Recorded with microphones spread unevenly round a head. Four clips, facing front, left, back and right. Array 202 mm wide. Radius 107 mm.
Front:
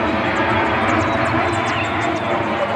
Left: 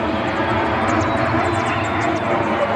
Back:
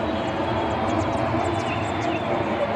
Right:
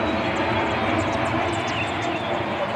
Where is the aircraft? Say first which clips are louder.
Left 3 dB, front 6 dB; 25° left; by 2.8 s 70° left.